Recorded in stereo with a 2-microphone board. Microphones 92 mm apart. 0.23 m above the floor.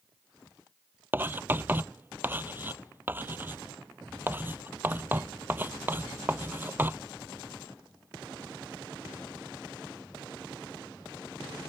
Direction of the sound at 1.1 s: 20° right (ahead or behind).